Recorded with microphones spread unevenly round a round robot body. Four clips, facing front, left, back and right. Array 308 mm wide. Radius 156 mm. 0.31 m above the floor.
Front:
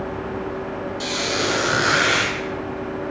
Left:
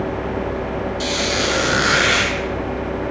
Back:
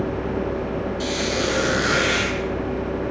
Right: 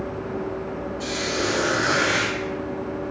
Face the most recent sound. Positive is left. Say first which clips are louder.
# left 2 dB, front 1 dB
turn(degrees=95)